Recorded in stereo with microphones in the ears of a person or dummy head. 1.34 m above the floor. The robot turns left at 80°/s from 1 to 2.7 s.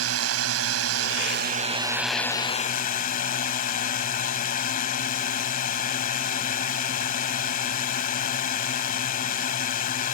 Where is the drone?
95° right; by 10.1 s 130° left.